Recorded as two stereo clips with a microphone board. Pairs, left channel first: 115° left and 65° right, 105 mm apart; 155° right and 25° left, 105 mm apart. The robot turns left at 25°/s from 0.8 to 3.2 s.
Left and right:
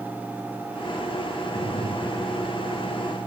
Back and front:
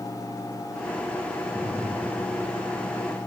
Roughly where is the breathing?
Behind left.